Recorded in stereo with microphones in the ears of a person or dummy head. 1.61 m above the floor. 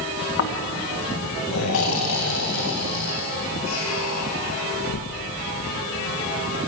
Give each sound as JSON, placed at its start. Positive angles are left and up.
{"t": 0.4, "sound": "snoring", "side_deg": 75, "distance_m": 1.9}